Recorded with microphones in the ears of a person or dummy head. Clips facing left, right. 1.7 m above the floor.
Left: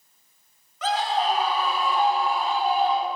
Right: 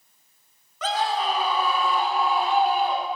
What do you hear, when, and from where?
0.8 s a scream: 70° right (ahead or behind), 1.6 m; by 3.1 s 50° right (ahead or behind), 1.5 m